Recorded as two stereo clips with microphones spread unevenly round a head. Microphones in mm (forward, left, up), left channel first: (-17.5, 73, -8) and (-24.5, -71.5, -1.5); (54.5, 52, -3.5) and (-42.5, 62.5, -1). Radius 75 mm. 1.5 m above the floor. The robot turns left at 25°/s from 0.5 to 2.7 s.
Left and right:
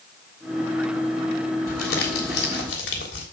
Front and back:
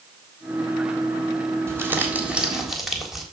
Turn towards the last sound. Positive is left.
turn(degrees=85)